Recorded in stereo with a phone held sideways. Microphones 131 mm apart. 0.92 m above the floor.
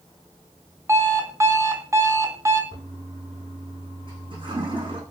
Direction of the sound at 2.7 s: 40° right (ahead or behind).